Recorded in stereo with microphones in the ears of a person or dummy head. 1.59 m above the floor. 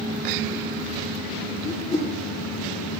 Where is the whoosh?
15° left (ahead or behind), 1.6 m.